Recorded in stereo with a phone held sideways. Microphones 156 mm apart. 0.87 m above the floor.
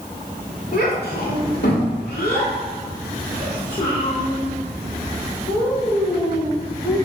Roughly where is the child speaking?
Left.